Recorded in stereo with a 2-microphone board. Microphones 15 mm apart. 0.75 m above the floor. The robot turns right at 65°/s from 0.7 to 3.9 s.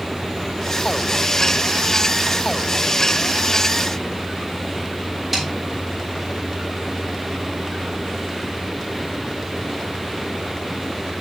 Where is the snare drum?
15° right (ahead or behind), 4.5 m.